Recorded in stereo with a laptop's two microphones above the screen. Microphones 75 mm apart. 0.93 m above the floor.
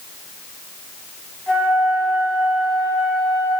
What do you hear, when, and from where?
1.5 s a flute: 15° left (ahead or behind), 2.5 m